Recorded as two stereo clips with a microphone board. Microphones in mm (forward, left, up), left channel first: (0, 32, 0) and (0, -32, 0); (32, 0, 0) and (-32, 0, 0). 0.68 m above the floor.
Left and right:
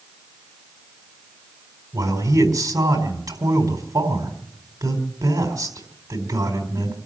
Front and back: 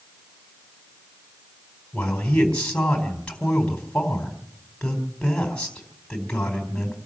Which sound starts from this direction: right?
A man speaking, at 1.9 s.